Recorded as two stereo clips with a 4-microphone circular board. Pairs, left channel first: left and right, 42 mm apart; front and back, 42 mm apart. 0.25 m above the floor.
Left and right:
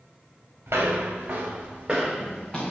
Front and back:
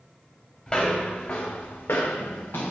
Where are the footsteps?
75° right, 1.2 m; by 2.7 s 15° left, 1.1 m.